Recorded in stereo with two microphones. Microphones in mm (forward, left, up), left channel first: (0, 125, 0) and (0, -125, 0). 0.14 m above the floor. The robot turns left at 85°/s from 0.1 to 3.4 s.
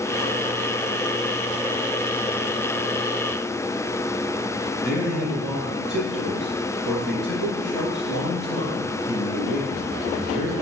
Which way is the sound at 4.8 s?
40° left (ahead or behind).